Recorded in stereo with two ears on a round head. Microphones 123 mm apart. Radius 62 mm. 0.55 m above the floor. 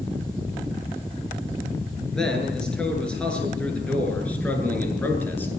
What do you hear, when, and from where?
2.1 s a man speaking: 5° left (ahead or behind), 9 m; by 5.5 s 15° left (ahead or behind), 8 m